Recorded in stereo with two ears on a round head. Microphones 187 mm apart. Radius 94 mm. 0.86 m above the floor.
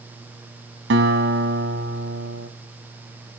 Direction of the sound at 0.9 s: 65° right (ahead or behind).